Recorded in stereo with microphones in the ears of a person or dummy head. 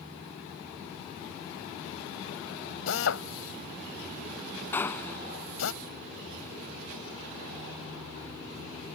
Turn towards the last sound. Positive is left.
turn(degrees=15)  # may be behind; listen again after turning